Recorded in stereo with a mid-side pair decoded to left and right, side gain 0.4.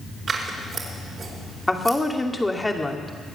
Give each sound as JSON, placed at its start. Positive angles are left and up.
{"t": 0.3, "sound": "scissors", "azimuth_deg": -50, "distance_m": 4.0}
{"t": 1.7, "sound": "a woman speaking", "azimuth_deg": 15, "distance_m": 2.5}